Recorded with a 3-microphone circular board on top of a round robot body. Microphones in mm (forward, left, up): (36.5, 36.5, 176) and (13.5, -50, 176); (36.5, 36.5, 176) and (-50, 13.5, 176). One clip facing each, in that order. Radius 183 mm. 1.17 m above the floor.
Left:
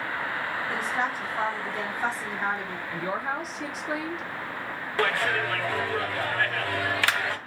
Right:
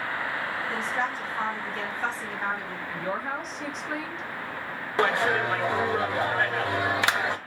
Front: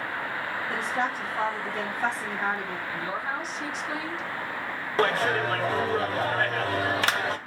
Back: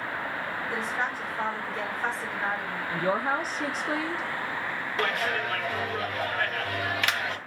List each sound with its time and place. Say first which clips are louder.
0.7 s a woman speaking: left 1 dB, front 3 dB; 5° right, 1.9 m
2.9 s a woman speaking: left 1 dB, back 7 dB; 160° left, 0.7 m
5.0 s a clap: right 2 dB, front 5 dB; 35° right, 0.6 m